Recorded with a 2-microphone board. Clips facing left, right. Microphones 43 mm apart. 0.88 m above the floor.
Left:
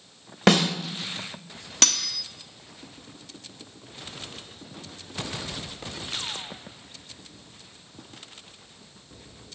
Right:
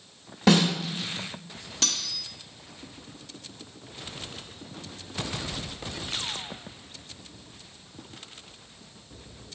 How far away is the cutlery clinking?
About 0.5 m.